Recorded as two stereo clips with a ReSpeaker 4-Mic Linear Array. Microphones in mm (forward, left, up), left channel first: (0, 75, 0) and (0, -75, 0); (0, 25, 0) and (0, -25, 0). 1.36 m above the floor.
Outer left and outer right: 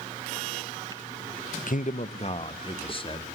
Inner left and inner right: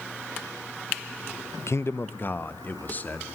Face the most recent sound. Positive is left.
turn(degrees=35)  # may be behind; listen again after turning